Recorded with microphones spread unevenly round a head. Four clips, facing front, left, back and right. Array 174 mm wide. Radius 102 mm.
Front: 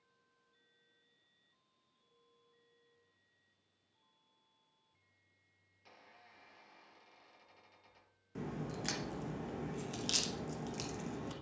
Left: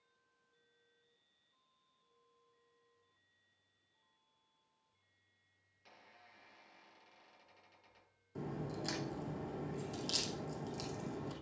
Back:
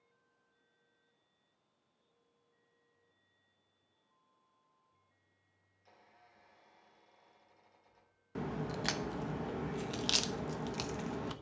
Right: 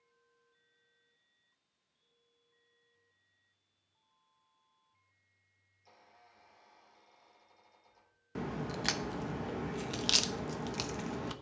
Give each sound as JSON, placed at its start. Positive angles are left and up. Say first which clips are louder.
{"t": 5.7, "sound": "a squeak", "louder": "right 1 dB, front 3 dB", "azimuth_deg": 30, "distance_m": 6.5}
{"t": 8.3, "sound": "a crack", "louder": "right 5 dB, back 4 dB", "azimuth_deg": -85, "distance_m": 1.1}